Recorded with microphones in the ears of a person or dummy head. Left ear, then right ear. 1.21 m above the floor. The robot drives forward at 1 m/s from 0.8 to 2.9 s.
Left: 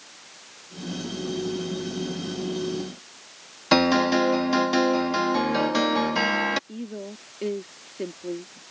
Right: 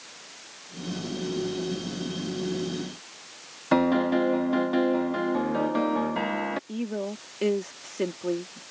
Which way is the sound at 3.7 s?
80° left.